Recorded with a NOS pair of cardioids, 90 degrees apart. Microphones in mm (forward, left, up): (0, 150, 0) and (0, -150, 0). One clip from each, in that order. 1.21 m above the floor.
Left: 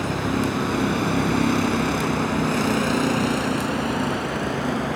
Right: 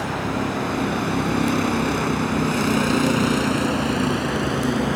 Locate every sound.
0.0 s a vehicle: 25° left; by 5.0 s 35° right